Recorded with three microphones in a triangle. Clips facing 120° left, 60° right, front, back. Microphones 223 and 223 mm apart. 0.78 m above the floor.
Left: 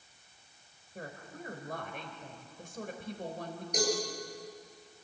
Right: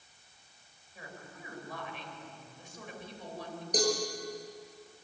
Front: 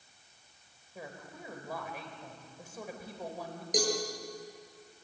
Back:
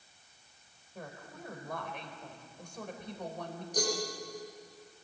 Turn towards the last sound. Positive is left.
turn(degrees=-5)